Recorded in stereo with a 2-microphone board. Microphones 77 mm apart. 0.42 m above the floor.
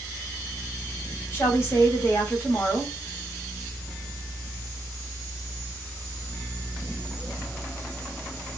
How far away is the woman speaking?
About 1.8 m.